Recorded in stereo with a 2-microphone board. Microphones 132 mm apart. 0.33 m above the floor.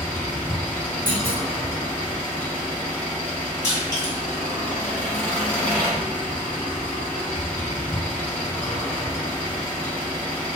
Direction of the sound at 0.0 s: 10° left (ahead or behind).